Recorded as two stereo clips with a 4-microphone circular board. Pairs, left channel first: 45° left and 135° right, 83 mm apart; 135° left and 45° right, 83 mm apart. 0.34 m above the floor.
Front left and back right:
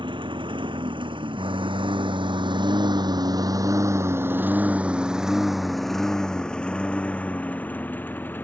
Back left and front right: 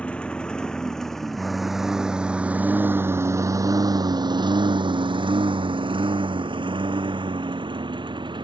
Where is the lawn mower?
150° right; by 8.4 s 25° right.